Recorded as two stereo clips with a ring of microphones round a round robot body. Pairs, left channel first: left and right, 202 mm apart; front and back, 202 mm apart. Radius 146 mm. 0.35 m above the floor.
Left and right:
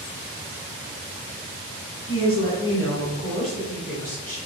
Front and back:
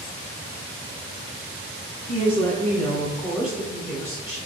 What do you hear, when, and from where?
2.1 s a woman speaking: 65° left, 1.3 m; by 4.4 s 125° right, 1.2 m